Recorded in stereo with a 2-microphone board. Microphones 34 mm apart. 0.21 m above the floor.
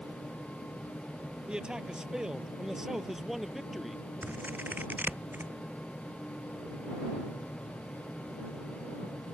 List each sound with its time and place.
1.5 s a man speaking: 25° right (ahead or behind); by 4.0 s centre (ahead or behind)
4.2 s scissors: 65° right (ahead or behind)